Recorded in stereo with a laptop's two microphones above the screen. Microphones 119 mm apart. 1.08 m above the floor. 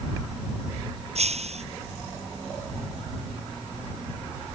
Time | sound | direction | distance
1.1 | breaking glass | 60° right (ahead or behind) | ?